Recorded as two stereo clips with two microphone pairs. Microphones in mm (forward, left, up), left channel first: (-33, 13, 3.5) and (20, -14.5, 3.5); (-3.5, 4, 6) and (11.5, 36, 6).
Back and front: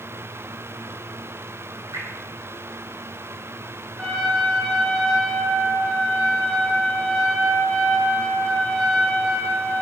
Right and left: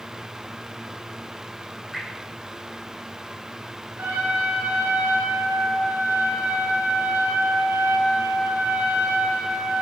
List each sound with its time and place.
1.9 s dripping: 10° right, 5.5 m
4.0 s a trumpet: 70° left, 4.5 m